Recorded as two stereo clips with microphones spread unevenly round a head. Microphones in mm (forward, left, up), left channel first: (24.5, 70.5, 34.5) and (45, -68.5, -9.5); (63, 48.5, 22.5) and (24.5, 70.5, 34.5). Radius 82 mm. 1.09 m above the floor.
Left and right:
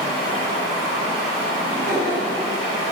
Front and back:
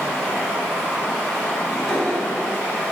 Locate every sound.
0.0 s running water: 95° right, 1.1 m
1.6 s laughter: 100° right, 1.8 m